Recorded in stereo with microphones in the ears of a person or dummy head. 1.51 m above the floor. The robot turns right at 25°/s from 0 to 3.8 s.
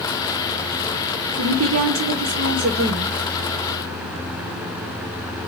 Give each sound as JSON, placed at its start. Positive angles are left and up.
{"t": 1.4, "sound": "a woman speaking", "azimuth_deg": -85, "distance_m": 1.2}